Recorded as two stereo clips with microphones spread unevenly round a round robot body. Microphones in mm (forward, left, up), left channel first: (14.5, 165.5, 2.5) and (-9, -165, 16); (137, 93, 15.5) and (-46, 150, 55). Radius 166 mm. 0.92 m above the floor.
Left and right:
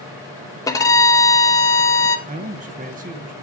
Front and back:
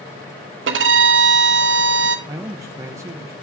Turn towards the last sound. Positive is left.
turn(degrees=-115)